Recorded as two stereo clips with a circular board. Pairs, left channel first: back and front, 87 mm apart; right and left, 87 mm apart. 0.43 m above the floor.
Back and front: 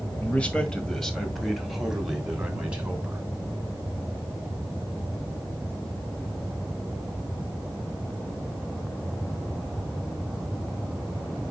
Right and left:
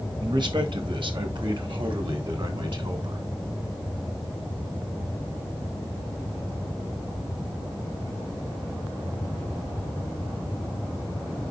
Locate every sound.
0.2 s a man speaking: 110° left, 1.7 m; by 3.2 s 75° left, 2.5 m